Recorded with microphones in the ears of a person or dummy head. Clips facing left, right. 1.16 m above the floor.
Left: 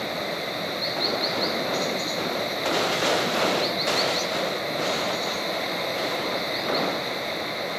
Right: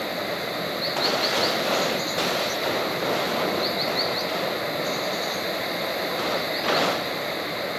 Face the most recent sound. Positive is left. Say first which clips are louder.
# right 1 dB
turn(degrees=-5)  # may be behind; listen again after turning